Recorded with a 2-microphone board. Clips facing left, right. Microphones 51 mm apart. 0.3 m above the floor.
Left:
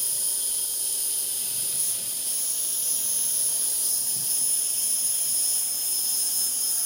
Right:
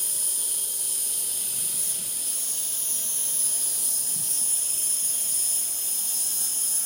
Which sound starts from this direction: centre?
An insect, at 0.0 s.